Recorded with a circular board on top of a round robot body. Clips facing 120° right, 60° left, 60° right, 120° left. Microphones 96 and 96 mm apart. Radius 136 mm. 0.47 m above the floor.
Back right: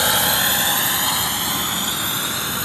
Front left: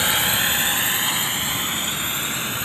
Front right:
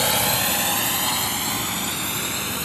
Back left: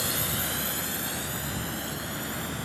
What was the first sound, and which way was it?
A drone, 50° right.